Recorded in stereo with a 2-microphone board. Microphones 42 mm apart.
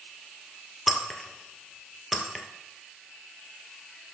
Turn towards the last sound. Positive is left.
turn(degrees=-5)  # may be behind; listen again after turning